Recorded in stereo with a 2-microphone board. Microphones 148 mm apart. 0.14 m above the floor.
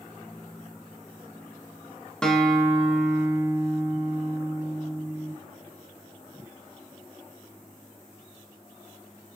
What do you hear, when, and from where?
2.2 s a guitar: 5° left (ahead or behind), 0.5 m